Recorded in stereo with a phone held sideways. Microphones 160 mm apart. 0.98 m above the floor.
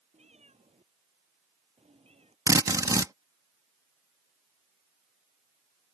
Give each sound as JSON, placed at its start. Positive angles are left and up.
{"t": 0.1, "sound": "a cat meowing", "side_deg": -45}
{"t": 2.5, "sound": "a drill", "side_deg": -20}